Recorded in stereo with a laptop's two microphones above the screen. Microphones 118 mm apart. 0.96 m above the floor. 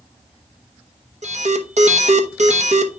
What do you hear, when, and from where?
1.2 s an alarm: 70° right (ahead or behind), 1.0 m